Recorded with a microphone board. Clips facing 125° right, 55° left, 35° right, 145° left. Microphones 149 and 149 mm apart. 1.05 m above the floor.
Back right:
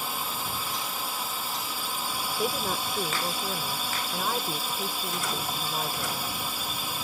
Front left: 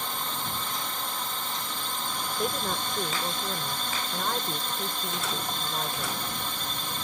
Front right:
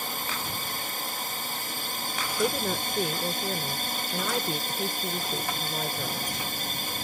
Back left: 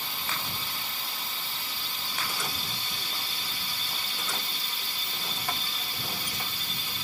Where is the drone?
45° right.